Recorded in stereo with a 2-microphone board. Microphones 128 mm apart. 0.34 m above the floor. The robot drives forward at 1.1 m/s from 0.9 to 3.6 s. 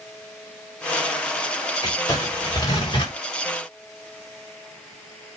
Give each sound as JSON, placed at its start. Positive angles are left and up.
{"t": 1.8, "sound": "crumpling", "side_deg": 30, "distance_m": 6.5}